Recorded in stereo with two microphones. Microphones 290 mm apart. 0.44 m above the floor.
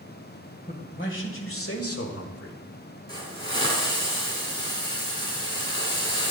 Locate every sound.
0.7 s a man speaking: 35° left (ahead or behind), 1.9 m; by 2.6 s 60° left (ahead or behind), 1.5 m
3.1 s a hiss: 40° left (ahead or behind), 2.5 m